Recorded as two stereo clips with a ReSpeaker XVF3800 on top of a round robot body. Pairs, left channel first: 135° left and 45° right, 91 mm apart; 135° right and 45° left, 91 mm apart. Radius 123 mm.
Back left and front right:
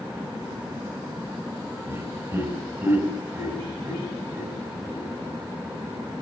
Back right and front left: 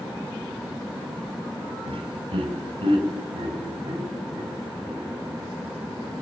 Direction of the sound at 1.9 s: 20° left.